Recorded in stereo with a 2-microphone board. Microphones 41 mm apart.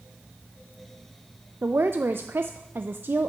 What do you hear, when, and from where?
1.6 s a woman speaking: 55° right (ahead or behind), 0.5 m